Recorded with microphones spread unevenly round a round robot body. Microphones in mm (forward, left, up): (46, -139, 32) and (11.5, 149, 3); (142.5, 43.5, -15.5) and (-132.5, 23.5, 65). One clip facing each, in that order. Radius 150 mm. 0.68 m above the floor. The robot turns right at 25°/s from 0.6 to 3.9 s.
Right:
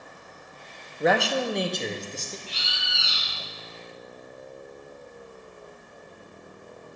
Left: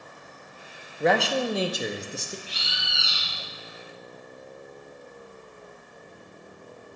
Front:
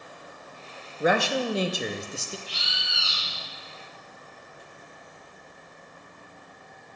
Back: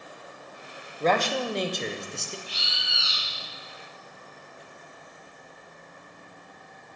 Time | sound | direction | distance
1.0 | a man speaking | 15° left | 0.6 m
2.5 | a bird | 80° left | 3.5 m